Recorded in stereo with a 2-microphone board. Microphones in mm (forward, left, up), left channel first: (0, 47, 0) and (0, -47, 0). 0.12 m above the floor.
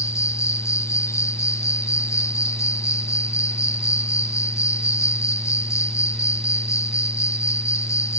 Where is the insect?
30° left (ahead or behind).